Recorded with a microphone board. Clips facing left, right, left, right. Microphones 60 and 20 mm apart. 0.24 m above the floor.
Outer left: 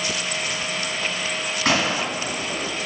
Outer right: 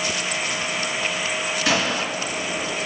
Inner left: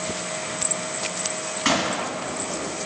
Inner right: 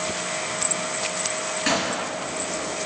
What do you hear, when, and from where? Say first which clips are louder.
1.6 s a gunshot: outer left 2 dB, inner left 2 dB; 60° left (ahead or behind), 4 m